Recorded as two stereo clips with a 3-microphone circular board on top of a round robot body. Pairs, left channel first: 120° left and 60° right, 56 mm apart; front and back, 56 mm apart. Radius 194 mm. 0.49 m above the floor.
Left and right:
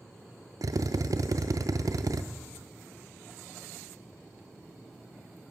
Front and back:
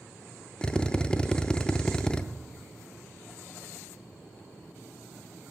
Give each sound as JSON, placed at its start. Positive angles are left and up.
{"t": 0.6, "sound": "a drill", "azimuth_deg": -75, "distance_m": 0.6}